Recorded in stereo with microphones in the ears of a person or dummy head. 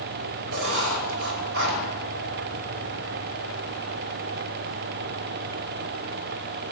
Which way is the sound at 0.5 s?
75° right (ahead or behind).